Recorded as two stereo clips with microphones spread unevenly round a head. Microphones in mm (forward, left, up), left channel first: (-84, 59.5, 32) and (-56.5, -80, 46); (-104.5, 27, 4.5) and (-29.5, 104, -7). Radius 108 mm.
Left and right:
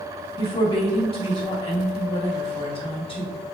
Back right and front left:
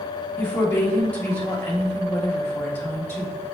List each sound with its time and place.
0.4 s a woman speaking: 155° left, 2.5 m